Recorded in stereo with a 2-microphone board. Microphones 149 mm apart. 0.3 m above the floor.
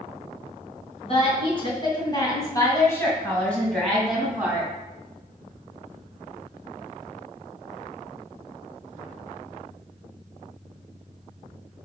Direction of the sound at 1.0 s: 40° left (ahead or behind).